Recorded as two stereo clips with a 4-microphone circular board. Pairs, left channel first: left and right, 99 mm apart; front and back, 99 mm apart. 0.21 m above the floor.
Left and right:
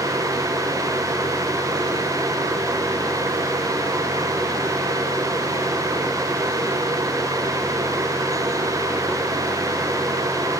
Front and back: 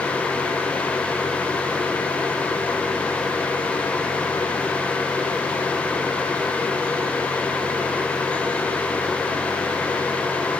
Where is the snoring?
I don't hear snoring.